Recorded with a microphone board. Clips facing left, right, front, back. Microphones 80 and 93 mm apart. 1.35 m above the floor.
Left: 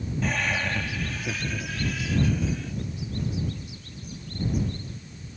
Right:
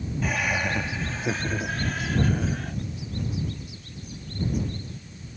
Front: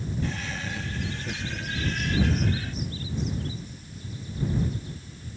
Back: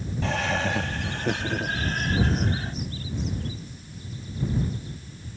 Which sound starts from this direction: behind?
Laughter, at 0.2 s.